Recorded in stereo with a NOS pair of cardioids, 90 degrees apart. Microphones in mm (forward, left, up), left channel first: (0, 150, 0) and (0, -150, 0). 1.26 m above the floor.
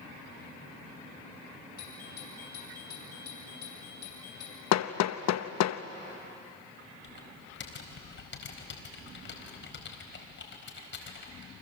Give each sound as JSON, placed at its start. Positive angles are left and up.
{"t": 1.8, "sound": "a doorbell", "azimuth_deg": 60, "distance_m": 6.5}
{"t": 4.7, "sound": "hammering", "azimuth_deg": 65, "distance_m": 0.9}
{"t": 7.0, "sound": "typing on a keyboard", "azimuth_deg": 40, "distance_m": 4.5}